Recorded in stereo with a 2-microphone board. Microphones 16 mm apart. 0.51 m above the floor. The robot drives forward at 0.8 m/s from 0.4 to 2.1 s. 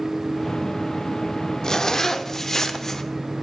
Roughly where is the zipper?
Left.